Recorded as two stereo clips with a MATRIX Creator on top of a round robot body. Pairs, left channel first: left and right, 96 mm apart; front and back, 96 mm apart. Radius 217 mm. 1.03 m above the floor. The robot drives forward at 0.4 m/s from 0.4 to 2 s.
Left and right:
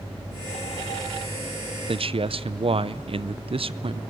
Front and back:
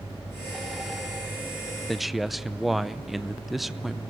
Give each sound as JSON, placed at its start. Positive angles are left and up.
{"t": 1.9, "sound": "a man speaking", "azimuth_deg": -90, "distance_m": 1.0}